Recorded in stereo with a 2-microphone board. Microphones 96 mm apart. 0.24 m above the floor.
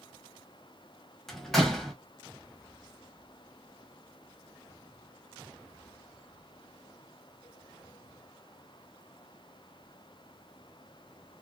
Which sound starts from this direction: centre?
A door slam, at 1.3 s.